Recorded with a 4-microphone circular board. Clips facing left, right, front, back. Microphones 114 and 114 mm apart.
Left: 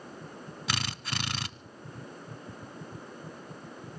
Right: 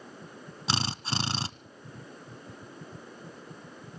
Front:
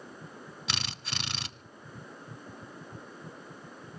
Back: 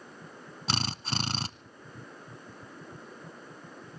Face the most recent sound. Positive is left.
turn(degrees=-145)